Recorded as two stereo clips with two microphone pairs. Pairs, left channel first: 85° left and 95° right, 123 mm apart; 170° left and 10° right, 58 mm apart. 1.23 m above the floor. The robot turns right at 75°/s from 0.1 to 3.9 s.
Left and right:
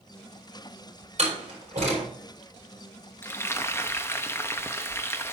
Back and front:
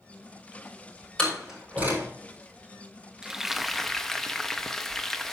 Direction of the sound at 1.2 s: 120° right.